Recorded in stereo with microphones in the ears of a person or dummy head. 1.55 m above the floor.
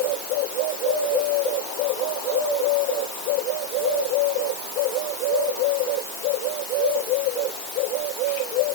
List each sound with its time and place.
Only background noise.